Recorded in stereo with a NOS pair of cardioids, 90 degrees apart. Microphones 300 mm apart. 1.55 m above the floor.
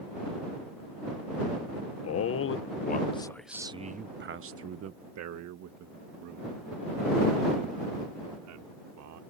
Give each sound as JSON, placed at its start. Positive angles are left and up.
{"t": 2.0, "sound": "a man speaking", "azimuth_deg": 55}